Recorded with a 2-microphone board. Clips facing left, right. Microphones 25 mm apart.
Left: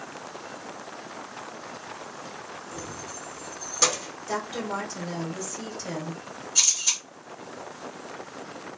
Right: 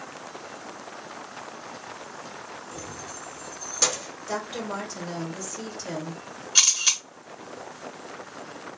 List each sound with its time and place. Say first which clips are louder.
2.7 s keys jangling: left 1 dB; centre (ahead or behind), 0.9 m
4.3 s a woman speaking: left 1 dB; 10° right (ahead or behind), 1.3 m
6.5 s a camera shutter: right 3 dB; 65° right (ahead or behind), 2 m